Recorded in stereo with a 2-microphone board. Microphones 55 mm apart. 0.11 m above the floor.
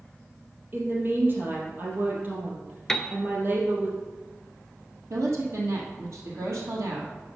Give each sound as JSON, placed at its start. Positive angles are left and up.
{"t": 0.7, "sound": "a woman speaking", "side_deg": -40, "distance_m": 2.5}
{"t": 2.9, "sound": "a piano", "side_deg": 10, "distance_m": 0.6}
{"t": 5.1, "sound": "a woman speaking", "side_deg": -65, "distance_m": 2.5}